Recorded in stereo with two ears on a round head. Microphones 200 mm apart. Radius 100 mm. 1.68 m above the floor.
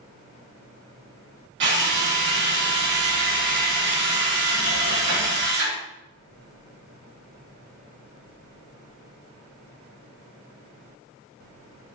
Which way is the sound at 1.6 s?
55° right (ahead or behind).